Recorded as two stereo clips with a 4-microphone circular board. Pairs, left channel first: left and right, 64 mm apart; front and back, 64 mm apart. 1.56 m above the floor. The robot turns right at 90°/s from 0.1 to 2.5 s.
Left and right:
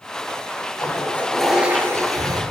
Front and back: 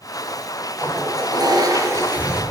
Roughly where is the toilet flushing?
Behind left.